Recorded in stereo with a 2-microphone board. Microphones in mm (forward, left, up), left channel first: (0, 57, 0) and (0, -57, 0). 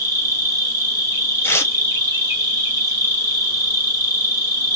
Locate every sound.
0.0 s an insect: 30° right (ahead or behind), 1.2 m
1.4 s tearing paper: 20° left (ahead or behind), 0.6 m